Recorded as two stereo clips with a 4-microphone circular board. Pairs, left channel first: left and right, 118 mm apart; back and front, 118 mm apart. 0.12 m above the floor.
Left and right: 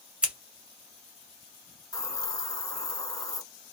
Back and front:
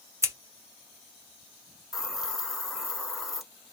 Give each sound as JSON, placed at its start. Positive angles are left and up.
{"t": 0.2, "sound": "scissors", "azimuth_deg": -20, "distance_m": 1.3}
{"t": 1.9, "sound": "a hiss", "azimuth_deg": 85, "distance_m": 0.7}